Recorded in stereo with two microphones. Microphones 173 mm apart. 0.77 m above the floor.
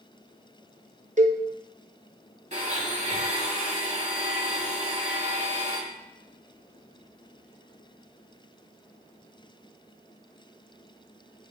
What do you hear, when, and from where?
1.2 s a cowbell: 45° right (ahead or behind), 0.7 m
2.5 s a blender: 45° right (ahead or behind), 2 m